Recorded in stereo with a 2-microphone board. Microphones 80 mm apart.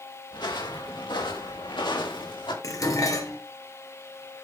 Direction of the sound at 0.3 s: 70° left (ahead or behind).